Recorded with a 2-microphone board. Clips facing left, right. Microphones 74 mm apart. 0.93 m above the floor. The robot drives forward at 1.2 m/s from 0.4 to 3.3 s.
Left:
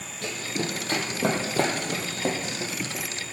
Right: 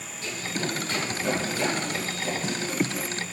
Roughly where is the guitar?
I don't hear a guitar.